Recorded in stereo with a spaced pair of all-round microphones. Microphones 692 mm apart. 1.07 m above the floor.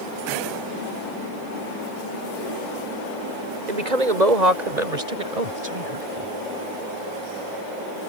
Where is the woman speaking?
90° right; by 6.3 s 55° right (ahead or behind).